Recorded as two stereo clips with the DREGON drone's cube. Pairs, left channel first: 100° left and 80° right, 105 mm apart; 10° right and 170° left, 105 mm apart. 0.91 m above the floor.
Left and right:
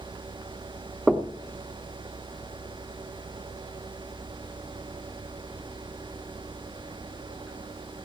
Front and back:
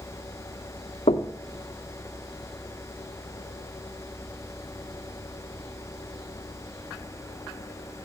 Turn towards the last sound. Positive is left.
turn(degrees=5)